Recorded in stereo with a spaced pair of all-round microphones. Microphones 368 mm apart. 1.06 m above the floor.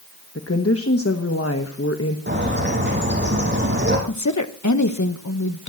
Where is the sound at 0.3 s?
40° left (ahead or behind), 1.2 m.